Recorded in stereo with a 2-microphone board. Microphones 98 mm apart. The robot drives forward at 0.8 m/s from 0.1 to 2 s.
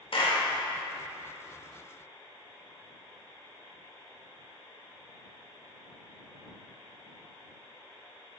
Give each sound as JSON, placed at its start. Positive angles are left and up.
{"t": 0.1, "sound": "a clap", "side_deg": 60, "distance_m": 1.3}